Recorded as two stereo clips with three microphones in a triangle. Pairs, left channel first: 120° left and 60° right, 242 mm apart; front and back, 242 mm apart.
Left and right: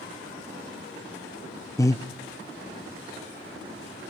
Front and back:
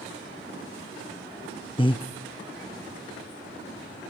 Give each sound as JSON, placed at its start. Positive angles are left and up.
{"t": 1.8, "sound": "breathing", "azimuth_deg": 50, "distance_m": 0.6}